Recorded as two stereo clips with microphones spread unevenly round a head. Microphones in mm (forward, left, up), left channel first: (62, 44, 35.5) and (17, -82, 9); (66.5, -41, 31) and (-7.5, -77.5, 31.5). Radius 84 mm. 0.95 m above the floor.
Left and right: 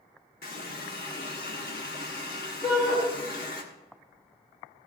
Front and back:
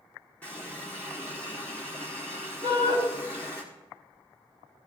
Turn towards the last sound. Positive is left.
turn(degrees=165)